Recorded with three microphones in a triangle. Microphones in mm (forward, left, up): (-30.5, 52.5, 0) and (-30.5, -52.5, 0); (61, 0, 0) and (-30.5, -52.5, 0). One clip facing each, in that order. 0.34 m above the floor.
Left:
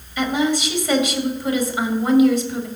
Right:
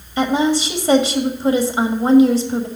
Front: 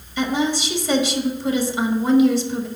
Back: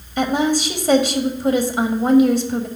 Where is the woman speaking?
135° right, 1.5 m.